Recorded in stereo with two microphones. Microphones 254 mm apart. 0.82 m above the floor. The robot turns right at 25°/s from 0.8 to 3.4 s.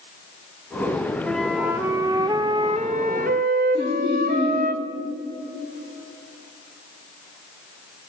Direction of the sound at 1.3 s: 175° left.